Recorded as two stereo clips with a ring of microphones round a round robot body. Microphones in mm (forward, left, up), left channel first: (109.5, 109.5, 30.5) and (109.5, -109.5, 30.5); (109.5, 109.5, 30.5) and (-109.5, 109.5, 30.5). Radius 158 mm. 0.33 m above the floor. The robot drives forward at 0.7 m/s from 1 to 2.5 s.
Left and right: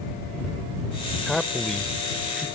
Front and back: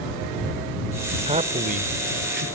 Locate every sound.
1.3 s a man speaking: 175° left; by 2.5 s straight behind